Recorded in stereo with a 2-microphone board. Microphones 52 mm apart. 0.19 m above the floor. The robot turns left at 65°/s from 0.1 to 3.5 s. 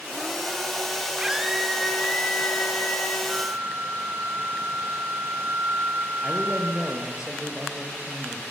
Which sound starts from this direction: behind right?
A scream, at 1.2 s.